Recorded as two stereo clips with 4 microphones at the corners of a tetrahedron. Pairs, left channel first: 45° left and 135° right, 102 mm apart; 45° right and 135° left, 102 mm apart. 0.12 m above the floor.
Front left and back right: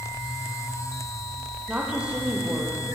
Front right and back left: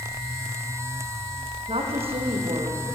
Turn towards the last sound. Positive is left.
turn(degrees=145)